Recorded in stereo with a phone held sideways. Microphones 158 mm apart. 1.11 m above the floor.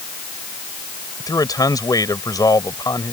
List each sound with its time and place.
1.2 s a man speaking: 20° left (ahead or behind)